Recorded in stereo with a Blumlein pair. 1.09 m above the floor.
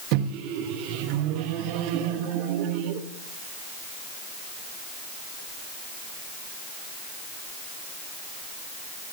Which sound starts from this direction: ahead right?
A microwave, at 0.1 s.